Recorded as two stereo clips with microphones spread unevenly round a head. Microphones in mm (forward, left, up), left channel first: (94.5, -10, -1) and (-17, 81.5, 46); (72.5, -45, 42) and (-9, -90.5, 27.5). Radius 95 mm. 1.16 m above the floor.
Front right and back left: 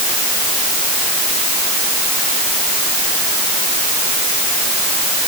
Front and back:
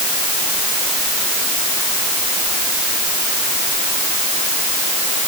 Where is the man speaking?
No man speaking in this recording.